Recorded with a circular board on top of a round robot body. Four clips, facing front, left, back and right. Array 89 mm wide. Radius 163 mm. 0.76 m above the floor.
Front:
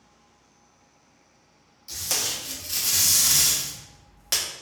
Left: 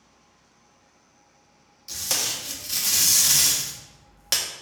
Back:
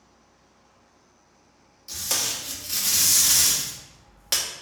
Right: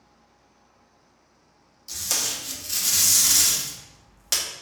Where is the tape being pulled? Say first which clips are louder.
Left 1 dB, back 1 dB; 95° left, 1.0 m.